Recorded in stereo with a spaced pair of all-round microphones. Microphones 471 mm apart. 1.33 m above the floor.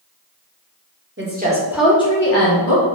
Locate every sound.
1.2 s a woman speaking: 25° right (ahead or behind), 0.7 m; by 2.9 s 50° left (ahead or behind), 0.6 m